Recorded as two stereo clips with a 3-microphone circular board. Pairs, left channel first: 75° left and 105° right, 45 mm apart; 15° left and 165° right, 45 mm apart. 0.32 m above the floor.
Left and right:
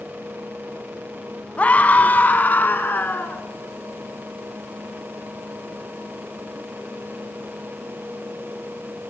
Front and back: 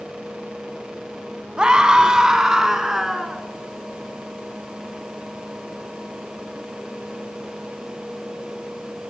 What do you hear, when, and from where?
1.6 s a scream: 125° left, 2 m; by 3.4 s 115° left, 3.5 m